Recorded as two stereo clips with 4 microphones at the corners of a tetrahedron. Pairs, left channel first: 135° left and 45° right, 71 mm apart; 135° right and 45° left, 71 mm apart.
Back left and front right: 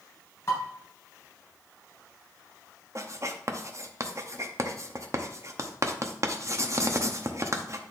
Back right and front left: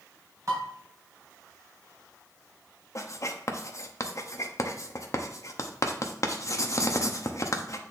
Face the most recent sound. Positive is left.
turn(degrees=-90)